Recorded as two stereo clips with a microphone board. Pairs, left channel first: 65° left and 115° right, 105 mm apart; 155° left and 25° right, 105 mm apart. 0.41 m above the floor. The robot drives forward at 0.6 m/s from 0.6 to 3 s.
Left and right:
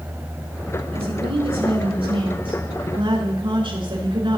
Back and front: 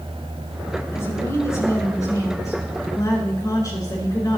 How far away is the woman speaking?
About 4.5 m.